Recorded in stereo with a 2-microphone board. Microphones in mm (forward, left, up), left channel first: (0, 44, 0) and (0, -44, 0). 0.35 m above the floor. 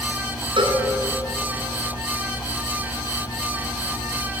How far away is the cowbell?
About 3 m.